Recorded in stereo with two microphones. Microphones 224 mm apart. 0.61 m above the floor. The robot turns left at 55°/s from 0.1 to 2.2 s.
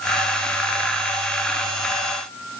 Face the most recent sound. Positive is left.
No sound to turn to.